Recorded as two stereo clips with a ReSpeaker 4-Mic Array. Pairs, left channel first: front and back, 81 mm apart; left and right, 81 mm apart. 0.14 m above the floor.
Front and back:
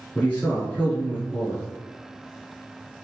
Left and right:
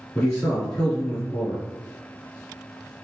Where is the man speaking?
20° left, 1.4 m.